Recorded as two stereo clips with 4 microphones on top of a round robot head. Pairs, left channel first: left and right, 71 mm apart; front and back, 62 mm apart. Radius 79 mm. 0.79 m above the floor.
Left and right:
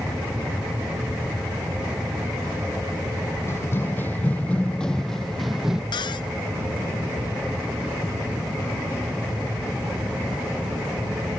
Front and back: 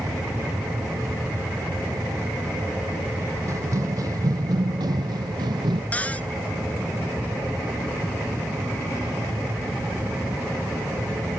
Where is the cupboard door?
65° left.